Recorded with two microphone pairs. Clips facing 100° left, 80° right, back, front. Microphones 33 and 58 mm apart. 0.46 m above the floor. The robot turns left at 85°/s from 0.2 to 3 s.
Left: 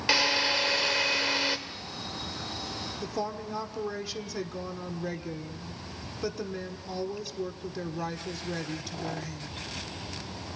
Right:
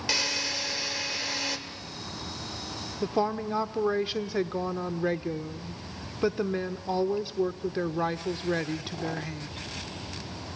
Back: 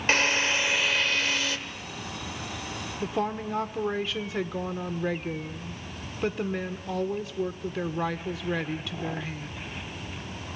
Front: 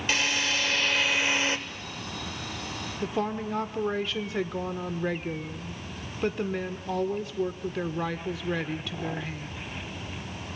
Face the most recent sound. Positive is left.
turn(degrees=-90)